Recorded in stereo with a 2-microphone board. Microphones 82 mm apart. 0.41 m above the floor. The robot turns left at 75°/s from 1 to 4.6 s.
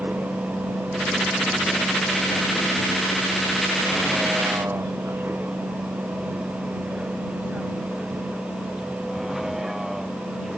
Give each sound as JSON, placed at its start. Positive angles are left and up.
{"t": 0.0, "sound": "a vehicle", "side_deg": -20}